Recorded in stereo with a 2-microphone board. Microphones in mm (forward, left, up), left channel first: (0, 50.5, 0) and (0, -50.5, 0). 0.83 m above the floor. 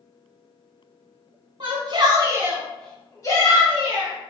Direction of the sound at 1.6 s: 50° right (ahead or behind).